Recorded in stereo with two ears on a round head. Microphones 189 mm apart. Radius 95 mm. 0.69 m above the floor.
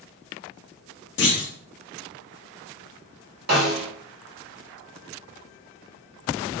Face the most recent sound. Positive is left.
turn(degrees=-50)  # may be behind; listen again after turning